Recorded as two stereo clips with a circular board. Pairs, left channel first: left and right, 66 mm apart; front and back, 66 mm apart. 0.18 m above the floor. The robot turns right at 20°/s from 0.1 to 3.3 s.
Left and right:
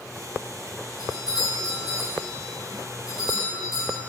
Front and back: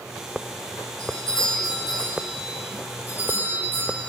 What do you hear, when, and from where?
1.0 s a doorbell: 75° left, 6 m; by 4.0 s 125° left, 6 m